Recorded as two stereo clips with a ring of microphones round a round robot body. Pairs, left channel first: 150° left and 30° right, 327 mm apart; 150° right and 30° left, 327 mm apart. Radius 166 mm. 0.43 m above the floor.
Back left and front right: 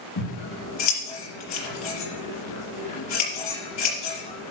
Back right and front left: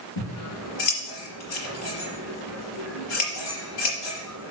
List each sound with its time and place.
0.2 s scissors: 170° right, 5 m